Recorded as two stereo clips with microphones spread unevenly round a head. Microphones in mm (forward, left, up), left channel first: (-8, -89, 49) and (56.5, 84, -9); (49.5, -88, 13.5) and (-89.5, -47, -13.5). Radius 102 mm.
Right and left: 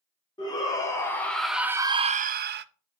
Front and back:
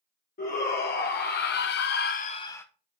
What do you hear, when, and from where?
0.4 s a shout: 40° right, 1.5 m; by 2.6 s 70° left, 0.7 m